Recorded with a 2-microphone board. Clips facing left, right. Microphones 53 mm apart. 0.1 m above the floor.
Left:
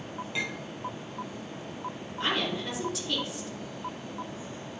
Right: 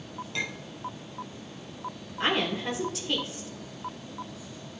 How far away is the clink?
About 1.3 m.